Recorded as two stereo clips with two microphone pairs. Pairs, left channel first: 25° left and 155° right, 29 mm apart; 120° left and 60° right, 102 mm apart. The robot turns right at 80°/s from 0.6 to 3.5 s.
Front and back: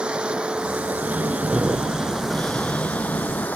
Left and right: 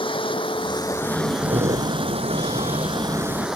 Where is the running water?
150° left; by 3.6 s 25° left.